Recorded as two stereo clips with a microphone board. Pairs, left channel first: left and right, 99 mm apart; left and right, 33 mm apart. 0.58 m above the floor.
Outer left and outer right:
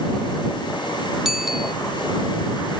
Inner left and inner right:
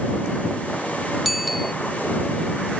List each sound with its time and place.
1.2 s a bicycle bell: 5° right (ahead or behind)